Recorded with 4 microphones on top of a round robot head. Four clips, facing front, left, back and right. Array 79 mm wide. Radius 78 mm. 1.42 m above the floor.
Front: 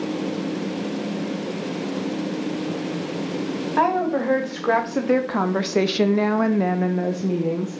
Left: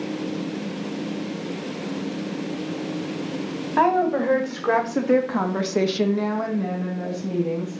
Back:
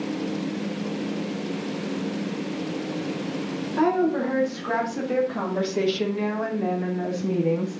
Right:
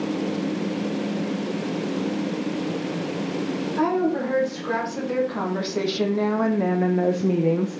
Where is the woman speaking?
45° left, 2.5 m; by 7.8 s 75° right, 1.3 m.